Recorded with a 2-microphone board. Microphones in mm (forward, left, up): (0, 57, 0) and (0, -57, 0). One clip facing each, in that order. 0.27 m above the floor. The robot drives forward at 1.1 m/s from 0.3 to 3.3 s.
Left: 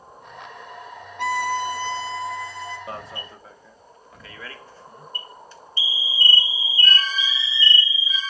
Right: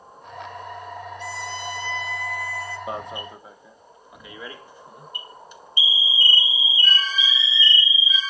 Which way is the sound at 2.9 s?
20° right (ahead or behind).